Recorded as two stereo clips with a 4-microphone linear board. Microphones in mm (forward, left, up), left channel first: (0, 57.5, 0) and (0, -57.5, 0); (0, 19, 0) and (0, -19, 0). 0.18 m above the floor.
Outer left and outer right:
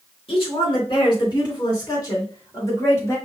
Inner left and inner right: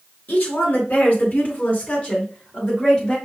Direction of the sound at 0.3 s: 50° left (ahead or behind).